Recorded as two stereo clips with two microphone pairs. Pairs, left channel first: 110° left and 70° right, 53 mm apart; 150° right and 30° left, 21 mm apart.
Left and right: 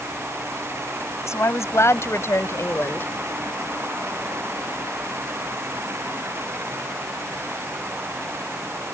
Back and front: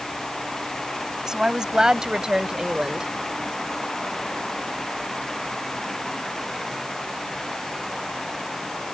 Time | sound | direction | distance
1.3 | a woman speaking | 90° left | ?